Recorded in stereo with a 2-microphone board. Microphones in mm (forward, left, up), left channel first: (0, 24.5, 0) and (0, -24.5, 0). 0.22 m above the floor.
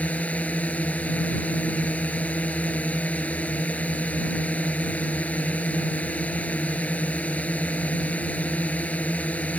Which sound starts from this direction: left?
A drone, at 0.0 s.